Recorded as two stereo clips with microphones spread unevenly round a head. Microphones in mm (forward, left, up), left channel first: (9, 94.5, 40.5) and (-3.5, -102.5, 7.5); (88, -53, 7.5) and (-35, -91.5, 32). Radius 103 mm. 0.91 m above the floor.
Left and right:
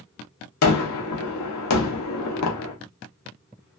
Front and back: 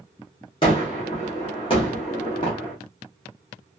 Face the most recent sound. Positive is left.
turn(degrees=85)